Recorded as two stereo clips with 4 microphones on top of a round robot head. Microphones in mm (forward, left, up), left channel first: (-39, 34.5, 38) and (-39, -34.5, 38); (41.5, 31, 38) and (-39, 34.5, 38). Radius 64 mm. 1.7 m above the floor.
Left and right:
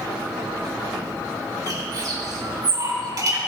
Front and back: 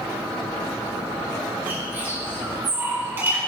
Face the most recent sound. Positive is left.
turn(degrees=-115)